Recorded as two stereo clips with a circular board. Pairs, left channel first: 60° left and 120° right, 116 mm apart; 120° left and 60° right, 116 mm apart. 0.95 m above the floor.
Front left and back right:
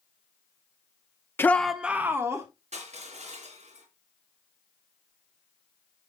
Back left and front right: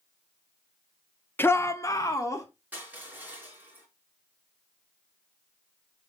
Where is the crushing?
135° right, 5 m.